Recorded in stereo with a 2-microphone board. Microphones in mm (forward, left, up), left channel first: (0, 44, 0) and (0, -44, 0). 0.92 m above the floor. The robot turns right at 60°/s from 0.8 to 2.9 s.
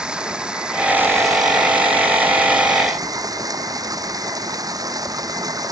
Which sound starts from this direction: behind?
Running water, at 0.0 s.